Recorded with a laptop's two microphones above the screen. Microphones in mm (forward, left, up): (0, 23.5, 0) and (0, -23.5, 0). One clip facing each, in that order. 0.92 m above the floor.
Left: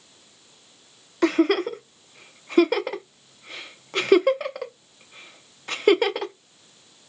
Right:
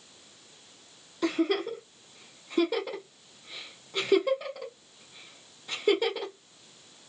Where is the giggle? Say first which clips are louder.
Left 7 dB; 75° left (ahead or behind), 0.5 m.